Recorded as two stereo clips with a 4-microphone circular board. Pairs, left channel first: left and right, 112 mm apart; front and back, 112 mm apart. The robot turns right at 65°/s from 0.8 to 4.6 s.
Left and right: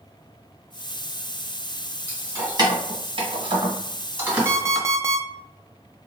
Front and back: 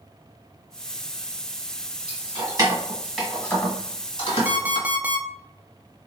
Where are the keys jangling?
160° right, 1.3 m; by 4.9 s straight ahead, 1.3 m.